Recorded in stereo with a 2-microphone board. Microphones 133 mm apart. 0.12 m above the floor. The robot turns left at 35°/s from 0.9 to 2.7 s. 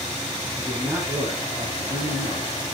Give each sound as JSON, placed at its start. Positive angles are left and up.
{"t": 0.6, "sound": "a man speaking", "azimuth_deg": -10, "distance_m": 5.0}